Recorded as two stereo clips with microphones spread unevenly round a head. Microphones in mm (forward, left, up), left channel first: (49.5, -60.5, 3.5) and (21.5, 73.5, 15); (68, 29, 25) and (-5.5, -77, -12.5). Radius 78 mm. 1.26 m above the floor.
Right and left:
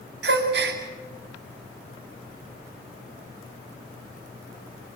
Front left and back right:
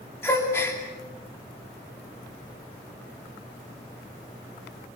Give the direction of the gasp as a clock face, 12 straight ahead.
8 o'clock.